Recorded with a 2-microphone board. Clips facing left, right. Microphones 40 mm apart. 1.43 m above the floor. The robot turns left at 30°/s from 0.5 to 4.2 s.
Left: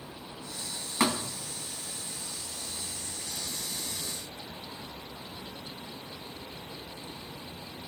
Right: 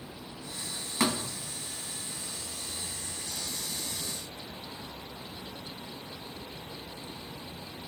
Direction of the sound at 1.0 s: 10° left (ahead or behind).